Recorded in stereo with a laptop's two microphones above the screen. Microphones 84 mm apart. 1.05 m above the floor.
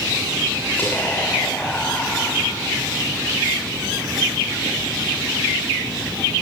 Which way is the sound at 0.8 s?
25° left (ahead or behind).